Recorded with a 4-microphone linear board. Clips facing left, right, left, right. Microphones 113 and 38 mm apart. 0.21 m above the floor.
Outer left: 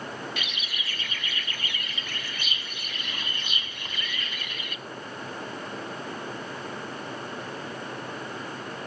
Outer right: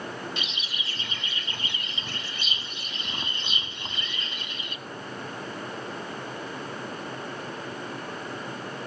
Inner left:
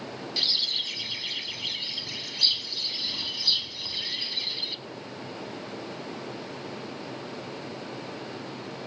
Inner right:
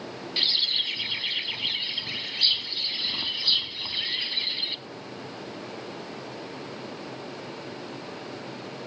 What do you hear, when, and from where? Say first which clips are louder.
0.4 s a bird: even, inner right 3 dB; 30° right (ahead or behind), 0.6 m